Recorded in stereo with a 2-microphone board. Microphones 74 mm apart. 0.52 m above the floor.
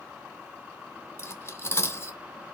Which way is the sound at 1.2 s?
35° left (ahead or behind).